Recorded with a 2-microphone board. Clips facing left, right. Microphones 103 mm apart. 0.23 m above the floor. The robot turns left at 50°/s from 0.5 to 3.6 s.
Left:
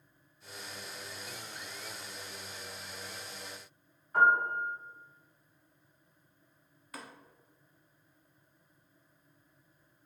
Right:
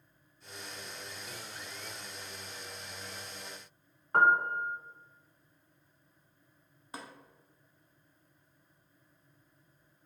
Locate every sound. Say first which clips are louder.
4.1 s a piano: even; 70° right (ahead or behind), 0.6 m
6.9 s tapping: right 2 dB; 25° right (ahead or behind), 0.5 m